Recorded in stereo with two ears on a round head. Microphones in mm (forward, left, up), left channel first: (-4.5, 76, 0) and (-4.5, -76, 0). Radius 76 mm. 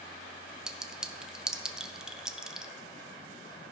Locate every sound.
0.7 s a clink: 5° right (ahead or behind), 0.6 m